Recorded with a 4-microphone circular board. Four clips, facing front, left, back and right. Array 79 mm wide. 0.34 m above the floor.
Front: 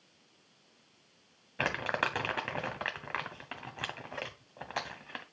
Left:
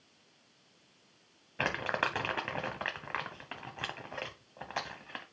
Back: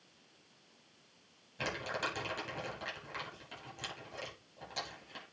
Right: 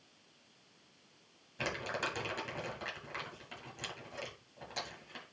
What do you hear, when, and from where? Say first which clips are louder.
1.6 s crumpling: left 5 dB, front 6 dB; 40° left, 1.0 m